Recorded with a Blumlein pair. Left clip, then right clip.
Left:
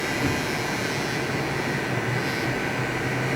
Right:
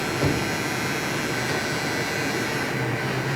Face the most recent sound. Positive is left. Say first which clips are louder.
# right 1 dB
turn(degrees=-30)